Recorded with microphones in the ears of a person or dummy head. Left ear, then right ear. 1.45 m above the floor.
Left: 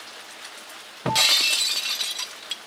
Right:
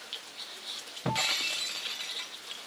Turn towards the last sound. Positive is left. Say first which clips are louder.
# left 10 dB
turn(degrees=20)  # may be behind; listen again after turning